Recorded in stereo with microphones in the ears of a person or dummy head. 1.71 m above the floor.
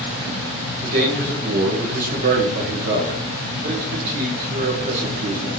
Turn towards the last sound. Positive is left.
turn(degrees=-50)  # may be behind; listen again after turning